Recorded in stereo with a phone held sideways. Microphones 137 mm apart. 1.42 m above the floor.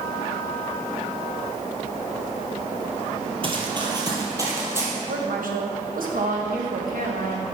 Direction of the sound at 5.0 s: 85° right.